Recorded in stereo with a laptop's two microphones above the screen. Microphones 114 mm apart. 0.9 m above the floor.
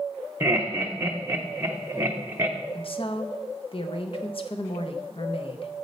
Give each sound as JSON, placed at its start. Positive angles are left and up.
{"t": 0.4, "sound": "laughter", "side_deg": -20, "distance_m": 0.6}
{"t": 2.7, "sound": "a woman speaking", "side_deg": 50, "distance_m": 0.7}